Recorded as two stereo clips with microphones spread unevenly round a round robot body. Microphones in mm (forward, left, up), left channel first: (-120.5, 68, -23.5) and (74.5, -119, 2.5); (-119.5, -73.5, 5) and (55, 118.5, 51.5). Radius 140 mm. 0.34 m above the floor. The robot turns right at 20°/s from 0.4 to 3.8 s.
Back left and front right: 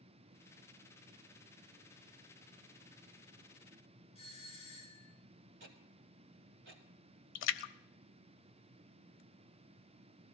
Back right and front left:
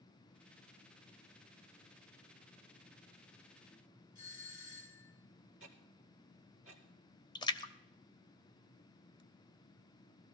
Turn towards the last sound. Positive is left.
turn(degrees=165)